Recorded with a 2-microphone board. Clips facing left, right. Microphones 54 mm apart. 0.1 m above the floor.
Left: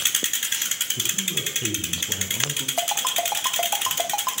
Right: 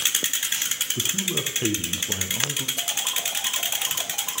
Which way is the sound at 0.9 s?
40° right (ahead or behind).